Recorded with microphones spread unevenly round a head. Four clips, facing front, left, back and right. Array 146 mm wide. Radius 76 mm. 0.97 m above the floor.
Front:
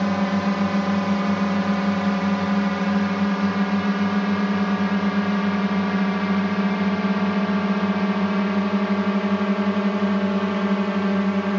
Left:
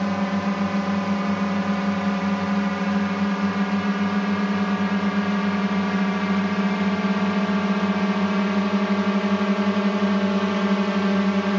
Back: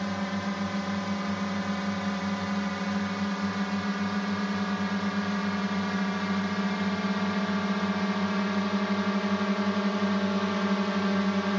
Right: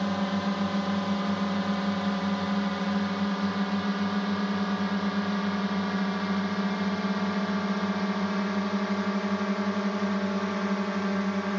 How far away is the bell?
I don't hear a bell.